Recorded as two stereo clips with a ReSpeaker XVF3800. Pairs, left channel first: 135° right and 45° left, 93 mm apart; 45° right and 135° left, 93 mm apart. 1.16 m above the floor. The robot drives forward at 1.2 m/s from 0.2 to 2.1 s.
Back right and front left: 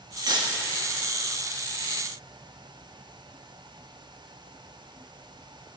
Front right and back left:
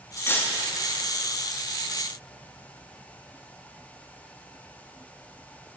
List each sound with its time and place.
0.2 s cutlery clinking: 15° left, 0.9 m; by 0.6 s 25° left, 0.6 m